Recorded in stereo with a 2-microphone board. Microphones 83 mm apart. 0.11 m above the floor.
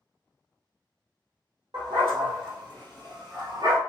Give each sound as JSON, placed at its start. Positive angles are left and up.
{"t": 1.7, "sound": "a dog barking", "side_deg": -65, "distance_m": 1.9}